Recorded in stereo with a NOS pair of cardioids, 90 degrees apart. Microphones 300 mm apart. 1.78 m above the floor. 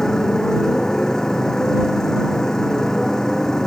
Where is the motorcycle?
Straight ahead.